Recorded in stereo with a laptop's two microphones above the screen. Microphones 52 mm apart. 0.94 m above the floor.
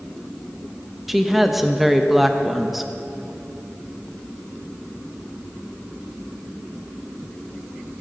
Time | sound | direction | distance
1.1 | a woman speaking | 5° right (ahead or behind) | 0.8 m